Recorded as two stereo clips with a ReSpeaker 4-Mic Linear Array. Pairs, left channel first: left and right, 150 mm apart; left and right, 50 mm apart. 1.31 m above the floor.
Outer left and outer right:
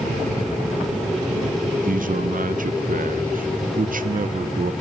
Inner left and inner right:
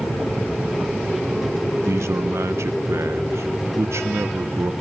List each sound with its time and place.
1.8 s a man speaking: 70° right (ahead or behind), 0.8 m